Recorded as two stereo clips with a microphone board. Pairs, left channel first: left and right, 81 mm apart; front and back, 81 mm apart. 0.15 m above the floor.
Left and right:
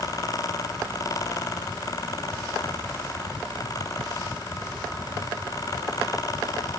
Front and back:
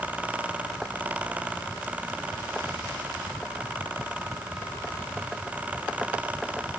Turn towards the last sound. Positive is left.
No sound to turn to.